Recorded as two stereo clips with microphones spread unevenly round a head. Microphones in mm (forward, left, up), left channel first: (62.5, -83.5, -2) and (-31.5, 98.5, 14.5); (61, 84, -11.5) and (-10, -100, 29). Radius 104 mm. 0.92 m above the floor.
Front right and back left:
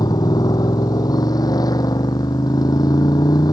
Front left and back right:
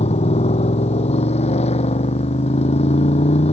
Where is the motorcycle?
10° left.